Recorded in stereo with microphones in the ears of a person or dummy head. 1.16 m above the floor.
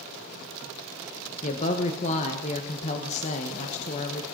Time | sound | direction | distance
1.4 | a woman speaking | 40° left (ahead or behind) | 1.0 m